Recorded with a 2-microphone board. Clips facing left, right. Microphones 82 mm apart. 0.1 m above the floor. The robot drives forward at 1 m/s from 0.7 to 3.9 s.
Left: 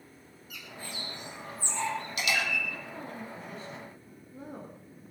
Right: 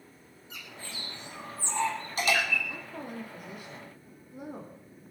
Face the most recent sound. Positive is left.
turn(degrees=-15)  # may be behind; listen again after turning